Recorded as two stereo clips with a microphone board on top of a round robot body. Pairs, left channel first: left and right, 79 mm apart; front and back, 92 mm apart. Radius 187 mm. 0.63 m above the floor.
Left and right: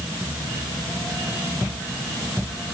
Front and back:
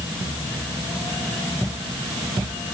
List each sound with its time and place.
Only background noise.